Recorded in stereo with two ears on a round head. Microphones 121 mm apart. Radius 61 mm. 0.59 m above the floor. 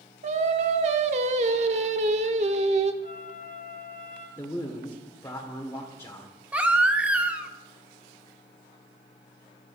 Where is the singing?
50° right (ahead or behind), 1.0 m.